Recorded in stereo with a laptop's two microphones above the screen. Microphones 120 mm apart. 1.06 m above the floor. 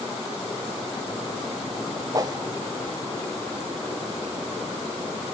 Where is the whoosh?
30° right (ahead or behind), 0.9 m.